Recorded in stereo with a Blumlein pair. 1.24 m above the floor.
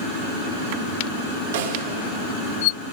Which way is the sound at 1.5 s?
60° right.